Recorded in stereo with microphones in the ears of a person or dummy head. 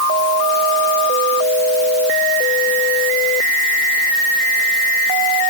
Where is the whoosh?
I don't hear a whoosh.